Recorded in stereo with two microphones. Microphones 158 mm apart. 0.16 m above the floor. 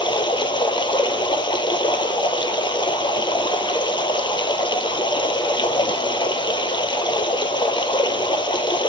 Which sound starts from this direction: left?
Running water, at 0.0 s.